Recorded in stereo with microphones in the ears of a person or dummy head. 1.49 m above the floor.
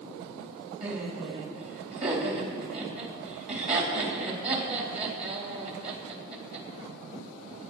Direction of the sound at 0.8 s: 35° right (ahead or behind).